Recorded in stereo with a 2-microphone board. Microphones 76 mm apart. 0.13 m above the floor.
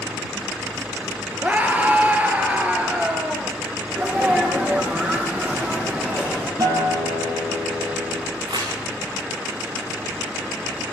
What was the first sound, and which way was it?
A scream, 20° right (ahead or behind).